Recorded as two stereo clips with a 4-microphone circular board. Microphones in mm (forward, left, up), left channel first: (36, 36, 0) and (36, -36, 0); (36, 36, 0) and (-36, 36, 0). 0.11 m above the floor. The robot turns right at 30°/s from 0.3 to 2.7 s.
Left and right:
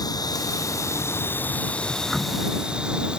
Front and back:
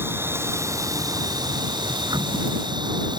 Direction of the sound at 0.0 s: 120° left.